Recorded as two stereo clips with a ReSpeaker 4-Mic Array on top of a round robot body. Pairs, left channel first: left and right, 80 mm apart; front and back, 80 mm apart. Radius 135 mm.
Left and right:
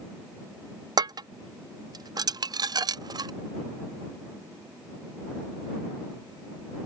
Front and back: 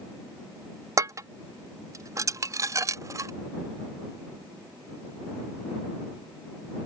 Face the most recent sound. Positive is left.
turn(degrees=-130)